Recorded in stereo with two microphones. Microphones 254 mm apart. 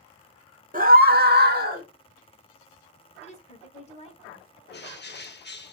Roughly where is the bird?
Left.